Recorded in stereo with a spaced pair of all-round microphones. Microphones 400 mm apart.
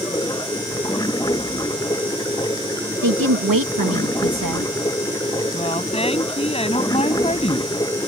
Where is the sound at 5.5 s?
15° left (ahead or behind).